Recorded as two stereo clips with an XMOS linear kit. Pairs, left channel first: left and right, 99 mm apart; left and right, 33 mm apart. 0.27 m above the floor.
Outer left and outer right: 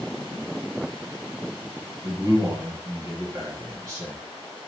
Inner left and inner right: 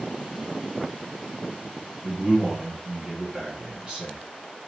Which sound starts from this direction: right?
A man speaking, at 2.0 s.